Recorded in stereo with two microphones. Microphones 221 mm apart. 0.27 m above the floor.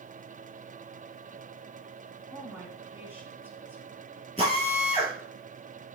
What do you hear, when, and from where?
2.3 s a woman speaking: 10° right (ahead or behind), 3.5 m
4.4 s a drill: 25° left (ahead or behind), 4 m